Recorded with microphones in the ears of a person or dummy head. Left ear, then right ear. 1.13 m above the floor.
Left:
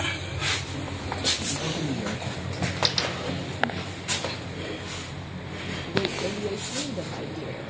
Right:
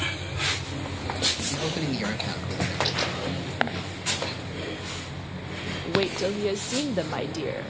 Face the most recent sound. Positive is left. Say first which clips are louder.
# right 3 dB
turn(degrees=-65)  # may be behind; listen again after turning